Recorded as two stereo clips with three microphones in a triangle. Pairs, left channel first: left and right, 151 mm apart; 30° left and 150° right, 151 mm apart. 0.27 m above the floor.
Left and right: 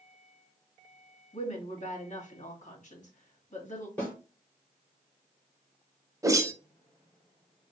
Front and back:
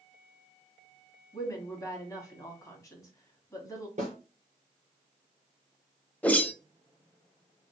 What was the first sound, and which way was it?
A woman speaking, 90° left.